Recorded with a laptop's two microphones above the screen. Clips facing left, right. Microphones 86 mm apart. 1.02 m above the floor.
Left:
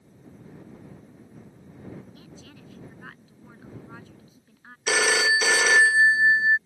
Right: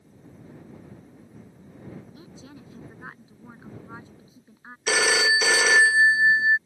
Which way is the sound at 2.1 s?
25° right (ahead or behind).